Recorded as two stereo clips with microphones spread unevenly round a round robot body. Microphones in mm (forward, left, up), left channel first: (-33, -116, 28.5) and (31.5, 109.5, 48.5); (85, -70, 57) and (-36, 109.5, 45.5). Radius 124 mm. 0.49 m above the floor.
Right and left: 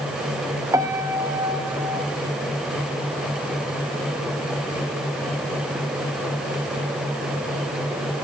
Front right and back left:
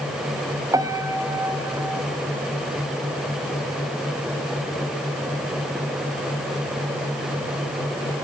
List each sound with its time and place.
0.7 s a piano: 135° left, 1.0 m